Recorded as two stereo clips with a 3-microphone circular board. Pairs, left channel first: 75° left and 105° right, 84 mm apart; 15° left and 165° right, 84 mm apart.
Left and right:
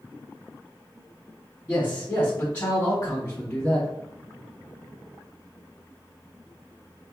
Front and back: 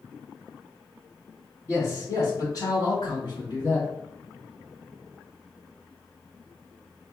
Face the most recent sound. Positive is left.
turn(degrees=5)